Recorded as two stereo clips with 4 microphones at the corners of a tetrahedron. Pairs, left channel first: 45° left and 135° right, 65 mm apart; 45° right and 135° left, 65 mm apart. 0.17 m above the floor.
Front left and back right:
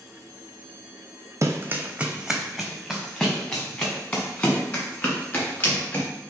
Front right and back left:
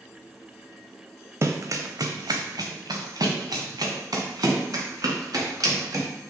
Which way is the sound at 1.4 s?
Straight behind.